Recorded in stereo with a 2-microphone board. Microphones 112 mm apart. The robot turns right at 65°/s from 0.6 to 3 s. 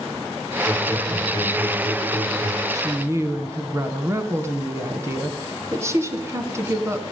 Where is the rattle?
I don't hear a rattle.